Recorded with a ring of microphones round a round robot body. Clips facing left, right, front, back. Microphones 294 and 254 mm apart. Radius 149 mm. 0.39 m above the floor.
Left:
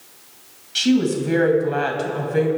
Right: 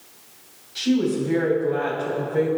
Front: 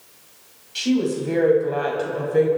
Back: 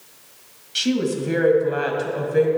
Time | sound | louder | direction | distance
0.8 | a woman speaking | left 3 dB, front 1 dB | 115° left | 3 m